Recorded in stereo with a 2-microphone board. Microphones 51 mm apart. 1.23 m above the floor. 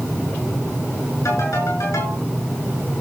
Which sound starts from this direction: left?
A ringtone, at 1.2 s.